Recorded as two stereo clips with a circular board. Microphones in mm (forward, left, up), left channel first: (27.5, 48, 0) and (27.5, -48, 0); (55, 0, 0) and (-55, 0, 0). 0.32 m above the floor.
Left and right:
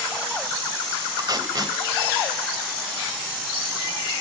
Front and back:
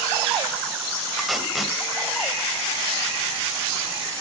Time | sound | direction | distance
1.2 | tape being pulled | 90° right | 1.9 m